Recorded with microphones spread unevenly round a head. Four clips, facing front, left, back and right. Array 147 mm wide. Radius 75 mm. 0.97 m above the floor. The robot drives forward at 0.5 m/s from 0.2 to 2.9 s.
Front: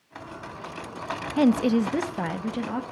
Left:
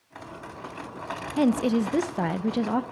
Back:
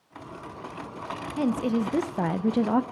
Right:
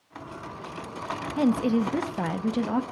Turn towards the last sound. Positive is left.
turn(degrees=155)